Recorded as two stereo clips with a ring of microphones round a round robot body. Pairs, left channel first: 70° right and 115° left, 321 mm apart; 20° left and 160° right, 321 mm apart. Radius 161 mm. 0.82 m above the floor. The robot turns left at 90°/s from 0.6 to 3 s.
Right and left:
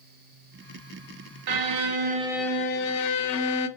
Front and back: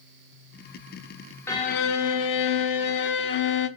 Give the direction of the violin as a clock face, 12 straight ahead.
8 o'clock.